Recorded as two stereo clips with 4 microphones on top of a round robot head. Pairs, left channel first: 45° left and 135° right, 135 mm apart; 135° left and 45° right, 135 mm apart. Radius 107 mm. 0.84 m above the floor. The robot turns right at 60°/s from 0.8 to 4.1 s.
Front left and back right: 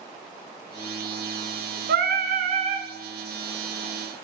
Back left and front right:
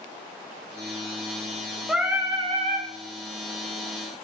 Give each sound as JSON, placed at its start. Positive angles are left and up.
{"t": 1.9, "sound": "singing", "azimuth_deg": -135, "distance_m": 1.0}